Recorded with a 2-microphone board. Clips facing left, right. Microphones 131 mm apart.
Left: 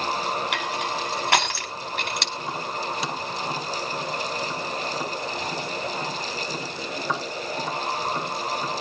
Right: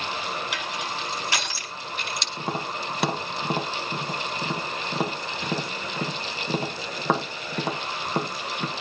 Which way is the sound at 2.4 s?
60° right (ahead or behind).